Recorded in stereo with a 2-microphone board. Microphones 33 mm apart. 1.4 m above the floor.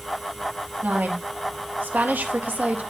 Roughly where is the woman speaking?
Right.